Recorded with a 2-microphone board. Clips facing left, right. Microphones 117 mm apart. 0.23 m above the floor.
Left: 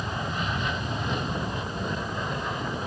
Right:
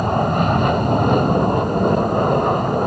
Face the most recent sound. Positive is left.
turn(degrees=-55)  # may be behind; listen again after turning